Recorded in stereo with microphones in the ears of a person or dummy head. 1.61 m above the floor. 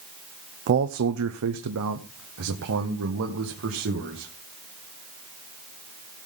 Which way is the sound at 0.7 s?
45° right (ahead or behind).